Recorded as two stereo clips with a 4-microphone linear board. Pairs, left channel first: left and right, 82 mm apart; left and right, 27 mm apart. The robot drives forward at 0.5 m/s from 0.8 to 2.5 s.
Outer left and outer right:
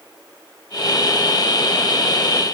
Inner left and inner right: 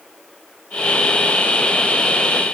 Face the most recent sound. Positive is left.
No sound to turn to.